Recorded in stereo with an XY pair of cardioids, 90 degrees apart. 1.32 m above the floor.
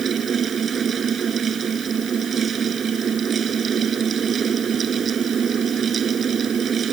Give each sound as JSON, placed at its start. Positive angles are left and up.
{"t": 0.0, "sound": "a fan", "azimuth_deg": -55}